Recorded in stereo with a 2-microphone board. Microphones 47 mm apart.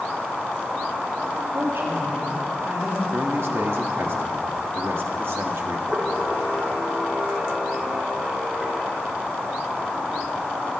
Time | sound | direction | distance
1.5 | a woman speaking | 70° right (ahead or behind) | 5 m
3.1 | a man speaking | 70° right (ahead or behind) | 1.8 m
5.9 | a camera shutter | centre (ahead or behind) | 4 m